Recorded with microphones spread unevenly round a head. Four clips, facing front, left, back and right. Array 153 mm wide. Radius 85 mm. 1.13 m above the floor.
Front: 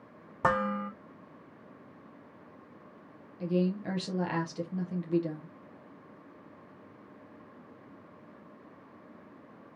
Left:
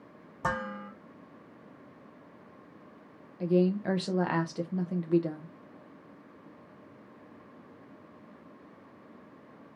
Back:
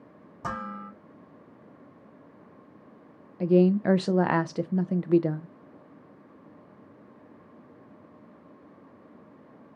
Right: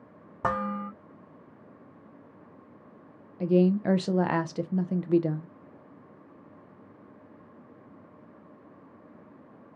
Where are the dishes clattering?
30° right, 2.5 m.